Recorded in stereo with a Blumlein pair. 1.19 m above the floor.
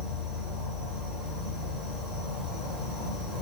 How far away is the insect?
About 1.1 m.